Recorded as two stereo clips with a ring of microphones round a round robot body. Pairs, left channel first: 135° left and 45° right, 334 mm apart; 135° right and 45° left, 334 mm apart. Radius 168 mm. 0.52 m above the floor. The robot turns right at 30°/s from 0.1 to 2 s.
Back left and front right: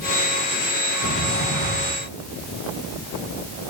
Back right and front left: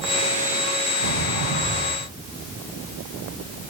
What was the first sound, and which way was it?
A sliding door, 75° left.